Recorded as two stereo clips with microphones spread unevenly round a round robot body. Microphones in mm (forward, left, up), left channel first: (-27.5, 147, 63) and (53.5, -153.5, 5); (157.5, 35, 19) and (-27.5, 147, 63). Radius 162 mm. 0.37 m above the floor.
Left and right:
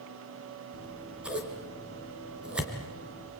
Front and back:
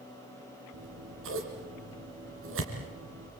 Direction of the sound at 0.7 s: 160° right.